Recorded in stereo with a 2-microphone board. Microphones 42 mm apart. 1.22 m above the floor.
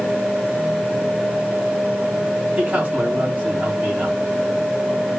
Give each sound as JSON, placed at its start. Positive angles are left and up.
{"t": 2.6, "sound": "a man speaking", "side_deg": -25, "distance_m": 3.0}